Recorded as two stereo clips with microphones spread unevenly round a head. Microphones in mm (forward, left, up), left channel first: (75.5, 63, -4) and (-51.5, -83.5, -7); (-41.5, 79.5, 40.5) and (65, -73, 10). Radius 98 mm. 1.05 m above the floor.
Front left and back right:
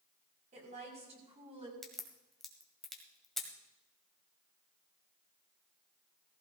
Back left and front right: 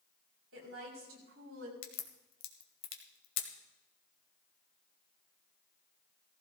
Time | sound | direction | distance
0.5 | a woman speaking | 75° right | 6.5 m
1.8 | a crack | 135° left | 1.8 m